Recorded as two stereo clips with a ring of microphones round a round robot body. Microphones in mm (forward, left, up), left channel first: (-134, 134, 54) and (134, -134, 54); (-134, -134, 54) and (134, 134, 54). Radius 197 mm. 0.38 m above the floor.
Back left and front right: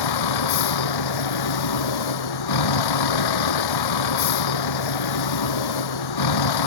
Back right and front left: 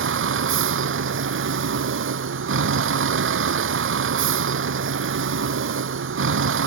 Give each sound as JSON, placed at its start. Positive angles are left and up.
{"t": 0.0, "sound": "a vehicle", "azimuth_deg": 105}